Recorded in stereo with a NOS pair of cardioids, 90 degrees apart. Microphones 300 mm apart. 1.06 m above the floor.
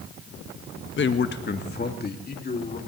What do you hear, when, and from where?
1.0 s a man speaking: 40° left, 1.2 m; by 2.8 s 30° left, 2.5 m